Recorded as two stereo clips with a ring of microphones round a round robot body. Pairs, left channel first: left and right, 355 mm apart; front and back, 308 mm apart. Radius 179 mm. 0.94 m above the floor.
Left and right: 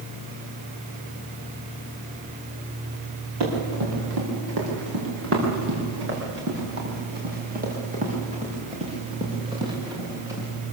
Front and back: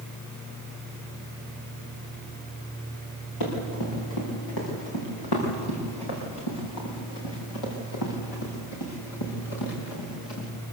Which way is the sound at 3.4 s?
45° right.